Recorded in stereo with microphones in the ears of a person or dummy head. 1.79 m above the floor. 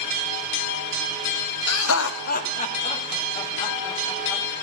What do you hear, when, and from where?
1.7 s laughter: 85° left, 0.8 m; by 4.4 s 10° left (ahead or behind), 2.5 m